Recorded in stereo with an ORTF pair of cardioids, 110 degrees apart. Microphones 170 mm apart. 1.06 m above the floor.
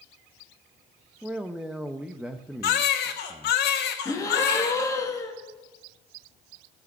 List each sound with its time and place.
1.2 s a man speaking: 5° right, 0.9 m
2.6 s a baby crying: 70° left, 1.6 m
4.0 s a gasp: 20° left, 1.8 m